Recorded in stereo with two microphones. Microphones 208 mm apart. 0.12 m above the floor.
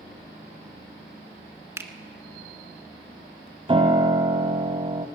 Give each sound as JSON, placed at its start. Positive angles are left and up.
{"t": 1.8, "sound": "a finger snap", "side_deg": -15, "distance_m": 1.1}
{"t": 3.7, "sound": "a piano", "side_deg": -25, "distance_m": 1.1}